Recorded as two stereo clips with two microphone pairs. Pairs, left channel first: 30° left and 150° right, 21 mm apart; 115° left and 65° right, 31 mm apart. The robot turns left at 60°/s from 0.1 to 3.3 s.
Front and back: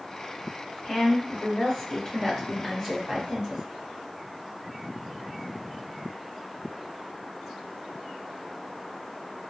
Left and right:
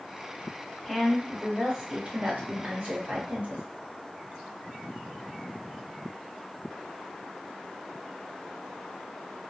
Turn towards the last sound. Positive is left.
turn(degrees=-95)